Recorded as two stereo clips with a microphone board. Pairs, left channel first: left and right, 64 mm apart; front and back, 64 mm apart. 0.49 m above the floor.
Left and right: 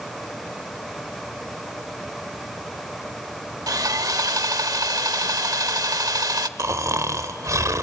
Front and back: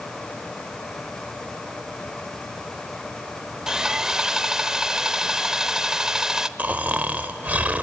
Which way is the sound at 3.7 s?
100° right.